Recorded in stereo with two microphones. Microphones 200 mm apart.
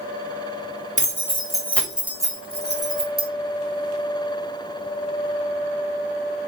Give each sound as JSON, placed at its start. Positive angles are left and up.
{"t": 1.0, "sound": "keys jangling", "side_deg": 35, "distance_m": 0.9}